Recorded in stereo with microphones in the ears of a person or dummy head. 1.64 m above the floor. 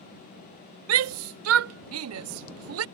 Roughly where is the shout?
Right.